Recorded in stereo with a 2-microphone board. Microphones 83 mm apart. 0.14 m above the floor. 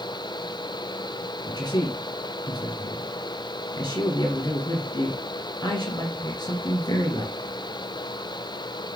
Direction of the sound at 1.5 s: 50° left (ahead or behind).